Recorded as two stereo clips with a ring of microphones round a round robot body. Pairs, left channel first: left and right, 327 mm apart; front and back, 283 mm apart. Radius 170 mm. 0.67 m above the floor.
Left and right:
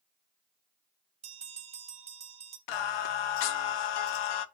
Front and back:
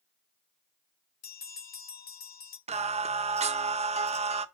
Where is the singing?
110° left, 0.5 m.